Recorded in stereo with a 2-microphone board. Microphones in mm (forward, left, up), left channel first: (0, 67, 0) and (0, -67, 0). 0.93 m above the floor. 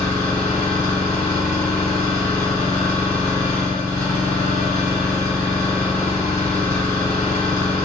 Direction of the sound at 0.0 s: 30° left (ahead or behind).